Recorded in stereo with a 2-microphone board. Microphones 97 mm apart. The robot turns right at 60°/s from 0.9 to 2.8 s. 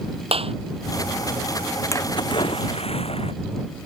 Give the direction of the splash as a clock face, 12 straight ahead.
11 o'clock.